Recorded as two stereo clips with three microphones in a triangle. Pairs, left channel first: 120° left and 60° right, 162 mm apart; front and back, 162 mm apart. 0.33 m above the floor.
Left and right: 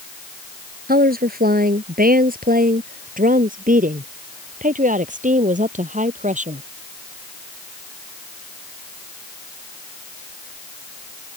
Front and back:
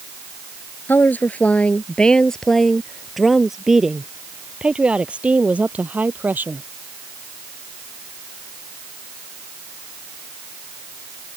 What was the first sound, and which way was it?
A woman speaking, 80° right.